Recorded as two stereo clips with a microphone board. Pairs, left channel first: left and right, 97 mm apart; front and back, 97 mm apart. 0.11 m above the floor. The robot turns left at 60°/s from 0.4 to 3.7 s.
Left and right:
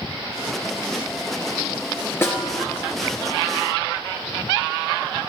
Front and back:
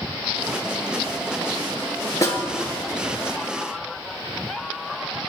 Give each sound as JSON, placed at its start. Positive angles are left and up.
{"t": 2.2, "sound": "a snare drum", "azimuth_deg": 35, "distance_m": 1.6}